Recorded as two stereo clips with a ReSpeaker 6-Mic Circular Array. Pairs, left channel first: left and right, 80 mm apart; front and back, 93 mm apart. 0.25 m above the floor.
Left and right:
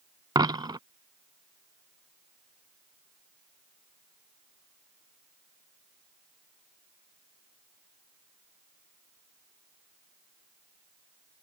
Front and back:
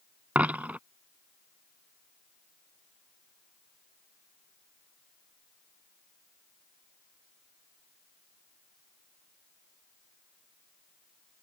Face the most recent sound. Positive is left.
turn(degrees=-105)